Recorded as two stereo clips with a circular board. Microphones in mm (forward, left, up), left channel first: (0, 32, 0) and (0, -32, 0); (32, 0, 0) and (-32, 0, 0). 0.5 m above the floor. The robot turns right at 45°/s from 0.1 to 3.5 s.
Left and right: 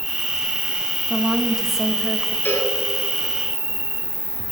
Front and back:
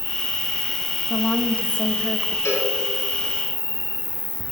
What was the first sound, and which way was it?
An insect, 160° left.